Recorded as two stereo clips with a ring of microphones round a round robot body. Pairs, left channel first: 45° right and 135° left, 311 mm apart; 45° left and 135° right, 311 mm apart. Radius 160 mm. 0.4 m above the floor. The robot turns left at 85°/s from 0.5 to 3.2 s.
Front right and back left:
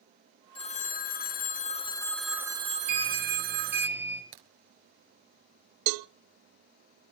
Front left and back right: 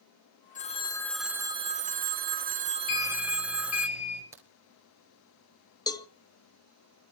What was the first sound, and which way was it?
A phone ringing, 10° left.